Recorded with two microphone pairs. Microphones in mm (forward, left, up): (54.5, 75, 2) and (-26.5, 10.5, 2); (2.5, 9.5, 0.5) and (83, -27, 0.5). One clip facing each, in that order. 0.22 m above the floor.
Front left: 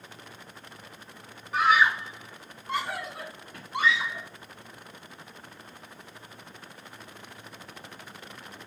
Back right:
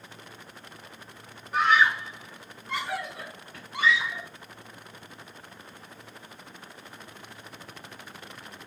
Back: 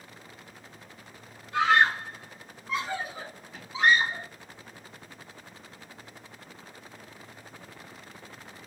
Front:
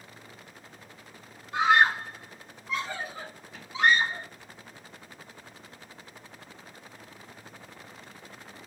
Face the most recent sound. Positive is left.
turn(degrees=75)